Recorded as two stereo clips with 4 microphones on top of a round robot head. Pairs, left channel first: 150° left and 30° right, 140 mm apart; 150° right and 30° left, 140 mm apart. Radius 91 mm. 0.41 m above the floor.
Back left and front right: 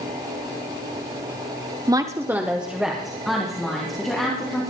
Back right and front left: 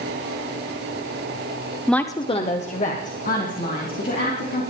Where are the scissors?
No scissors in this recording.